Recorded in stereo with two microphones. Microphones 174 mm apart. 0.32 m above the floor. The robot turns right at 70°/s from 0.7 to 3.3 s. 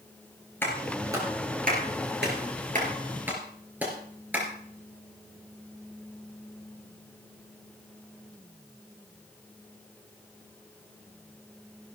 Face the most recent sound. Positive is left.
turn(degrees=-10)  # may be behind; listen again after turning